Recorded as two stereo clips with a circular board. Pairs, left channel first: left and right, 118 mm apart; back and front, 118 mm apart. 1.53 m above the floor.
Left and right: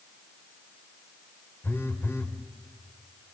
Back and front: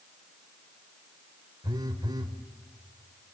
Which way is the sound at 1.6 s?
30° left.